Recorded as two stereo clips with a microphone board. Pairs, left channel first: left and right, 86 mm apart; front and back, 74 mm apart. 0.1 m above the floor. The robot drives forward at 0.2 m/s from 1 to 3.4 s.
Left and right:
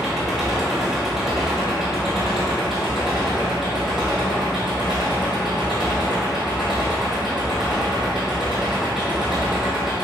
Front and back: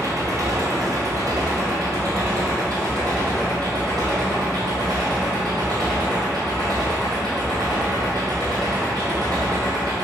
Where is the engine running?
175° right, 0.8 m; by 10.1 s straight behind, 1.3 m.